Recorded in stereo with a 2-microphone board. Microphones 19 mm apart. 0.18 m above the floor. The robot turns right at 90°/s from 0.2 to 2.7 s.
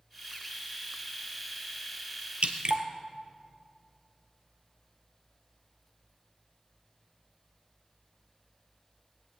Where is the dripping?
70° right (ahead or behind), 1.1 m; by 2.9 s 45° right (ahead or behind), 1.1 m.